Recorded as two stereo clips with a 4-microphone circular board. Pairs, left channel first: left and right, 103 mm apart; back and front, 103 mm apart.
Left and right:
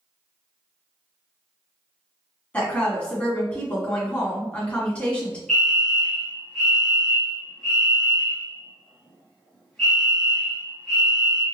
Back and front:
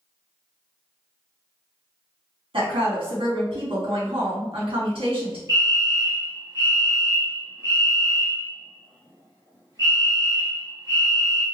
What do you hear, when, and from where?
2.5 s a woman speaking: 15° left, 1.8 m
5.5 s a fire alarm: 10° left, 1.4 m